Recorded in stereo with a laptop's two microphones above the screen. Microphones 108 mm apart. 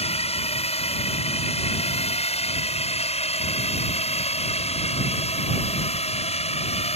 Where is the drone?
70° left (ahead or behind); by 7.0 s 75° left (ahead or behind).